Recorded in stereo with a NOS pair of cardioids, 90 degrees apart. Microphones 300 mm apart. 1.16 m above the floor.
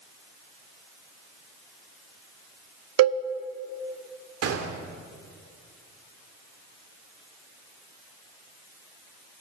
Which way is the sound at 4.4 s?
55° right.